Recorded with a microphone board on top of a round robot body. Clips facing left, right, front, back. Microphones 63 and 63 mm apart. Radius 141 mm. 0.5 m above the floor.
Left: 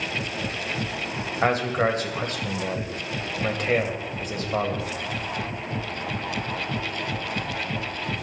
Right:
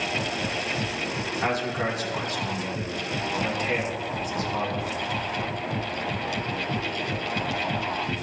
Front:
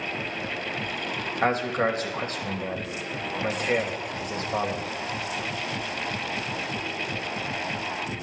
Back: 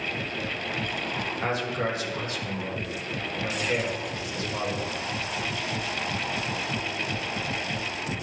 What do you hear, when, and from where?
1.4 s a man speaking: 45° left, 2.5 m